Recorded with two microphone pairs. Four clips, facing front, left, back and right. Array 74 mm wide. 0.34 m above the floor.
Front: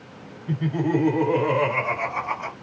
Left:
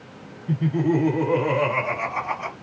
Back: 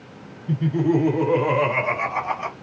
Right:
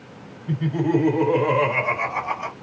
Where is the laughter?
45° right, 1.7 m; by 2.5 s 160° right, 1.7 m.